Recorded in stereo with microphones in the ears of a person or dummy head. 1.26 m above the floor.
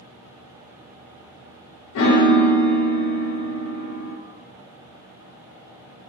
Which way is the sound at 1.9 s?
60° left (ahead or behind).